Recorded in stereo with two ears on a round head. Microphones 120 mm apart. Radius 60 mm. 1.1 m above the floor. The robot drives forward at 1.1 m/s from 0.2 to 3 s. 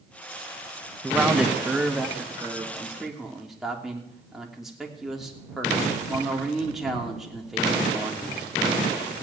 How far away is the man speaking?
About 1.0 m.